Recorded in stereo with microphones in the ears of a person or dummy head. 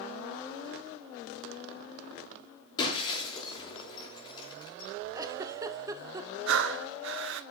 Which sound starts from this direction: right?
Breathing, at 6.5 s.